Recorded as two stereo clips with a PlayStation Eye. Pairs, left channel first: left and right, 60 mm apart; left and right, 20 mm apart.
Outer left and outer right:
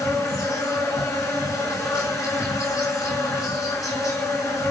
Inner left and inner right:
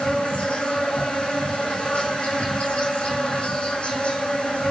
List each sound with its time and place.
0.0 s an insect: 70° left (ahead or behind), 2.5 m